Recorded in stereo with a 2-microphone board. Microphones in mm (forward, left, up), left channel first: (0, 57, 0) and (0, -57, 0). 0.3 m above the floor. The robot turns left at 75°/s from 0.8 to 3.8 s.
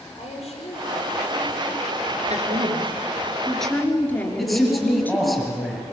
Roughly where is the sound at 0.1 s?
Left.